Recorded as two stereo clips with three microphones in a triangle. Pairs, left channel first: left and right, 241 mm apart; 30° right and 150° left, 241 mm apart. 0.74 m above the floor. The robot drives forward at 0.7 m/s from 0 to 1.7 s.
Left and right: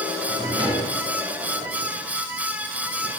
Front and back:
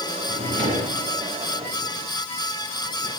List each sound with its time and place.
0.3 s a drawer: 160° right, 4 m